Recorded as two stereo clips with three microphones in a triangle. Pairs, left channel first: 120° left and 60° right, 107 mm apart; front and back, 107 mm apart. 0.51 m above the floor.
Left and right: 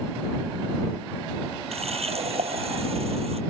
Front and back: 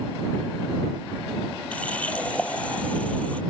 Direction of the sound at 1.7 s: 80° right.